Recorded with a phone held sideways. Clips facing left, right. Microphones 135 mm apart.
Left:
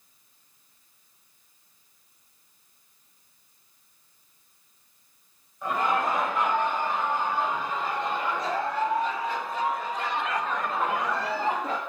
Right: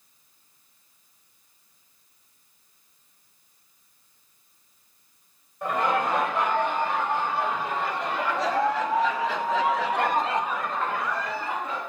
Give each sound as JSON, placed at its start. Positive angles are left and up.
{"t": 5.6, "sound": "laughter", "side_deg": -60, "distance_m": 5.5}